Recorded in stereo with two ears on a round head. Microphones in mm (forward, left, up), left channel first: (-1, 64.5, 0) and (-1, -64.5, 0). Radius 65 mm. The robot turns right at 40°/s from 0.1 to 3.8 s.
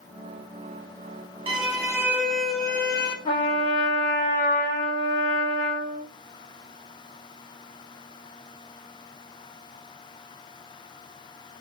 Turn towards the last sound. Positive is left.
turn(degrees=55)  # may be behind; listen again after turning